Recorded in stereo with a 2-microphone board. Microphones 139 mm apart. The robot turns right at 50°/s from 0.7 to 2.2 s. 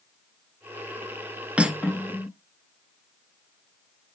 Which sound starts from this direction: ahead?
Cutlery clinking, at 1.6 s.